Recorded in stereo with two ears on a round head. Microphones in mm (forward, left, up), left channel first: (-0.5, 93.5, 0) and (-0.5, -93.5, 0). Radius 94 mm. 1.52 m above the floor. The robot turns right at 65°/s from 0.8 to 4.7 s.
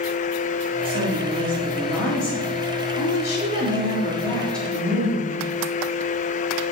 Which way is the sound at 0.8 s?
65° right.